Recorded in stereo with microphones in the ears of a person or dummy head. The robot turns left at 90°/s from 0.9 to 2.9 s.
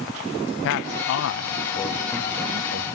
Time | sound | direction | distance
0.6 | a man speaking | 70° left (ahead or behind) | 1.5 m